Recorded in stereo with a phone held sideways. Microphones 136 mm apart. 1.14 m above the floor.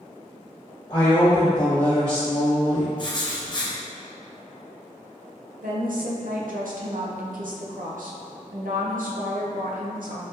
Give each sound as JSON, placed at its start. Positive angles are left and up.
{"t": 0.9, "sound": "a woman speaking", "side_deg": 35, "distance_m": 1.2}
{"t": 3.0, "sound": "writing", "side_deg": 35, "distance_m": 0.6}
{"t": 5.6, "sound": "a woman speaking", "side_deg": -85, "distance_m": 0.6}